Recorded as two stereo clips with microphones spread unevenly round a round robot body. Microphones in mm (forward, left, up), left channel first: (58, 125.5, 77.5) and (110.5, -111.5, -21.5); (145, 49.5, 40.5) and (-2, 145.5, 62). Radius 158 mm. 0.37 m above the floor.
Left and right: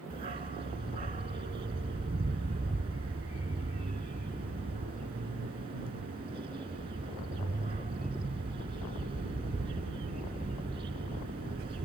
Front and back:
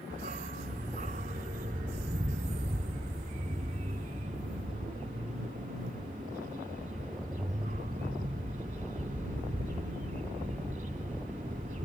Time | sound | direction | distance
0.1 | a dog barking | 150° right | ?